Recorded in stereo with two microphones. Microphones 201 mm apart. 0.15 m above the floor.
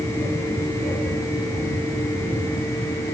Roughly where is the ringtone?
I don't hear a ringtone.